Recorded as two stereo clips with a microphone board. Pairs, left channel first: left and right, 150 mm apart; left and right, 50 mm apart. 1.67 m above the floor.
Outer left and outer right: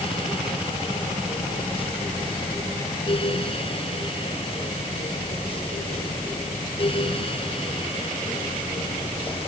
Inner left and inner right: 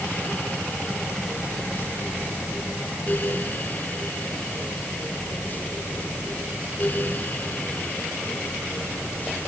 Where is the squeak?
I don't hear a squeak.